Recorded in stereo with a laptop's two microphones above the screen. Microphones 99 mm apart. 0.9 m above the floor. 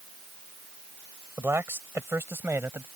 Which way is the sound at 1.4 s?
25° right (ahead or behind).